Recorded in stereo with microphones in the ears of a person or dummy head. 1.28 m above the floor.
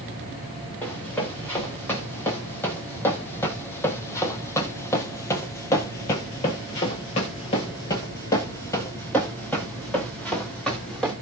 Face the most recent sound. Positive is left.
turn(degrees=5)  # may be behind; listen again after turning